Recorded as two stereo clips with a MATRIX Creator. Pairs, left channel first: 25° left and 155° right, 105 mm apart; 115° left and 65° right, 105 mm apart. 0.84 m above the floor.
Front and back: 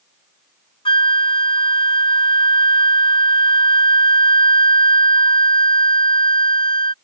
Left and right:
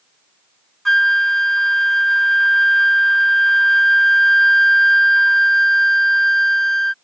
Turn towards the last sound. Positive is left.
turn(degrees=25)